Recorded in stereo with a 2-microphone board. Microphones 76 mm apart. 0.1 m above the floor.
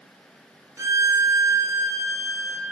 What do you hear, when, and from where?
0.8 s a violin: 40° right (ahead or behind), 0.6 m